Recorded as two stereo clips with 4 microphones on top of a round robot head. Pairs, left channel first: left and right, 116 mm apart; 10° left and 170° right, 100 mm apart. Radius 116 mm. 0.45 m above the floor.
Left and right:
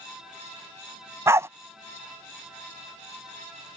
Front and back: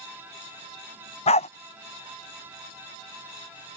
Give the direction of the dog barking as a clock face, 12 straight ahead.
1 o'clock.